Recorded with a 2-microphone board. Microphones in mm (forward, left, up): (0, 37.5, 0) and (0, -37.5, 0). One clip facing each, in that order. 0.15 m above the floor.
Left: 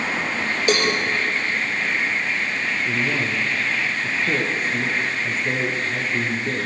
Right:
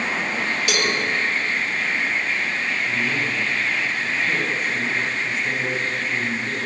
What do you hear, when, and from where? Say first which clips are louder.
0.7 s a cowbell: left 6 dB; 35° left (ahead or behind), 3.5 m
2.8 s a man speaking: left 2 dB; 35° left (ahead or behind), 4.5 m